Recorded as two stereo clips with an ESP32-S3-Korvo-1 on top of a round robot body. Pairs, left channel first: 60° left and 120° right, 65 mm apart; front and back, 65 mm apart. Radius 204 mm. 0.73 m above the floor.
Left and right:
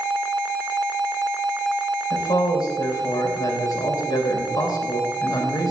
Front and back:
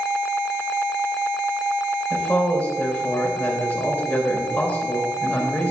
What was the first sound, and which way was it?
A man speaking, 60° left.